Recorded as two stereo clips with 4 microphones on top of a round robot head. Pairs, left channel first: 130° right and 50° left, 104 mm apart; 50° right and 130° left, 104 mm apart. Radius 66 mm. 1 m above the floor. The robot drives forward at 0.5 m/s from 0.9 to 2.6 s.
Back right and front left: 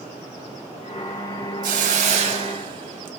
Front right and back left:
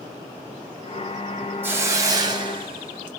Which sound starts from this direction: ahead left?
A hiss, at 1.6 s.